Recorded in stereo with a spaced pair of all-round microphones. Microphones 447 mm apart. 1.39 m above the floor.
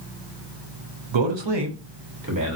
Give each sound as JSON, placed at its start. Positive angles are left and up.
{"t": 1.1, "sound": "a man speaking", "side_deg": -80, "distance_m": 0.6}